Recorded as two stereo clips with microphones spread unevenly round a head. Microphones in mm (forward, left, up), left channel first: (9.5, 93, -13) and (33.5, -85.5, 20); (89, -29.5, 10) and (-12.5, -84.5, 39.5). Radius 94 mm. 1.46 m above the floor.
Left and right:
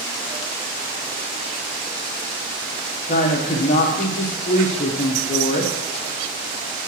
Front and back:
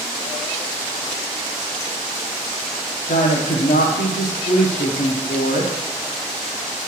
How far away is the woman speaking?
About 1.0 m.